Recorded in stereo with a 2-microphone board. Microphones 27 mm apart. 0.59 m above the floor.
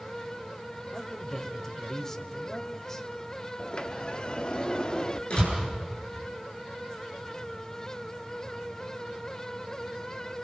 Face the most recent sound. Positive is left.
turn(degrees=45)  # may be behind; listen again after turning